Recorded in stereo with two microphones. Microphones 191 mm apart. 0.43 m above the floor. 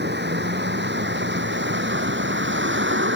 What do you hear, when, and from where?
0.0 s a vehicle: 65° right (ahead or behind); by 3.2 s 80° right